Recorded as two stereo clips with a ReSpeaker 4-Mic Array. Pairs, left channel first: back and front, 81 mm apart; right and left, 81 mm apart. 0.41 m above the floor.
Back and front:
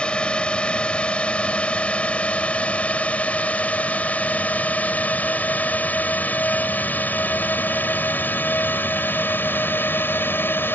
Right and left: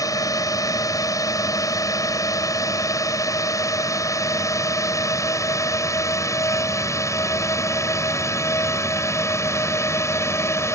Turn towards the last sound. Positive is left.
turn(degrees=-130)